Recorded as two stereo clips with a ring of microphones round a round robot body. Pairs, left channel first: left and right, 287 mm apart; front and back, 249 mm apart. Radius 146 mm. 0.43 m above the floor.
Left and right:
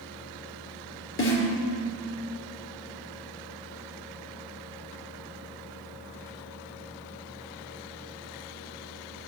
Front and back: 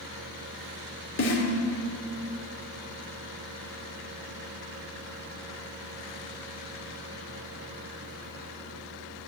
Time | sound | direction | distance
1.2 | a snare drum | 40° left | 3 m